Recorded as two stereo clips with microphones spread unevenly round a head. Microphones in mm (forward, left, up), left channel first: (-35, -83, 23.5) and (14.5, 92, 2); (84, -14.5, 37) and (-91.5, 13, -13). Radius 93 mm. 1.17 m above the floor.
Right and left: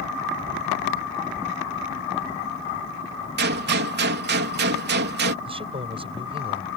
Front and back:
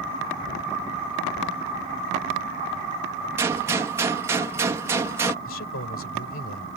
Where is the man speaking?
10° left.